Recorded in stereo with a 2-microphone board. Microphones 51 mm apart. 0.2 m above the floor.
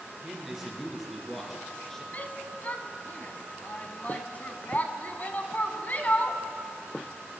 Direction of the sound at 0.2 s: 10° right (ahead or behind).